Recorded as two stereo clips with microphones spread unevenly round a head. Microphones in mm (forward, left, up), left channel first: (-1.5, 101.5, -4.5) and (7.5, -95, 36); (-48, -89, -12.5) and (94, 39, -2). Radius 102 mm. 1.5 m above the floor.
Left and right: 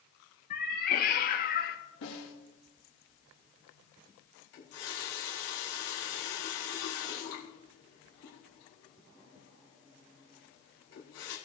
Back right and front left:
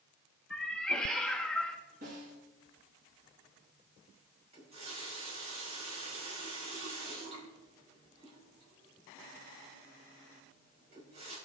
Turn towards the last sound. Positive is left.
turn(degrees=105)